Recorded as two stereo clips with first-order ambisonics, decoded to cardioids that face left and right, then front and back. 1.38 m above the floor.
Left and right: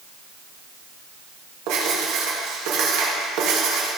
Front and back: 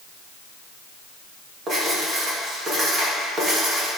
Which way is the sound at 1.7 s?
115° right.